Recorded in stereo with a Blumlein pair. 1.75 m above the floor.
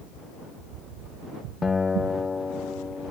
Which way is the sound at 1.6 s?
15° left.